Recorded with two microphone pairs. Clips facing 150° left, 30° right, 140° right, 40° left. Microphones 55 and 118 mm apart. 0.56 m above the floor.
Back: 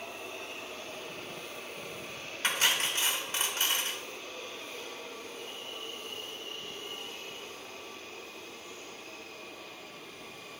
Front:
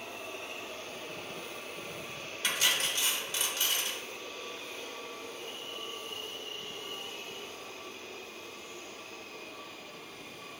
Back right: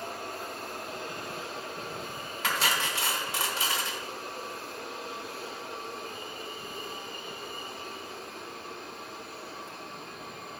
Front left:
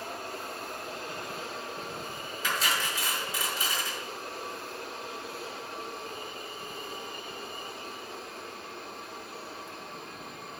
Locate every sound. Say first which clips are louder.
2.4 s cutlery clinking: back 2 dB, back right 1 dB; 155° right, 1.0 m